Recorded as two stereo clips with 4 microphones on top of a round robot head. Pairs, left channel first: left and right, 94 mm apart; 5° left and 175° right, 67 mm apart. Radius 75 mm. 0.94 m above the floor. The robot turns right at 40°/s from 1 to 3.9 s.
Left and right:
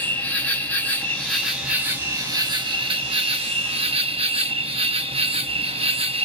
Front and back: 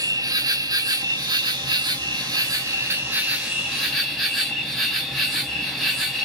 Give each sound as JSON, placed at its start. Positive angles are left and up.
{"t": 0.0, "sound": "an insect", "azimuth_deg": 165, "distance_m": 1.3}